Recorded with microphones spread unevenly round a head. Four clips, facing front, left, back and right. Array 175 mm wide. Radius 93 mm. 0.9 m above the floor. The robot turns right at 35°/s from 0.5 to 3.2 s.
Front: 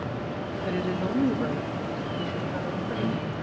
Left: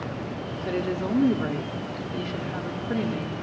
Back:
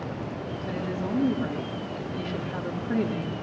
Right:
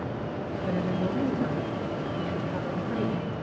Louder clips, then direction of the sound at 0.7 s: Left 2 dB, front 2 dB; 60° left.